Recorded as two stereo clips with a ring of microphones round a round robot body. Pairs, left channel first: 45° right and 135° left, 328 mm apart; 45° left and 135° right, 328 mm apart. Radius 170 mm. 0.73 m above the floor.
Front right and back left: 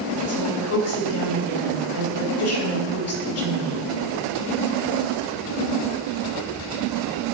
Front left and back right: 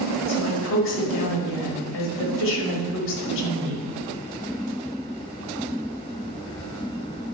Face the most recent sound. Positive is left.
turn(degrees=-5)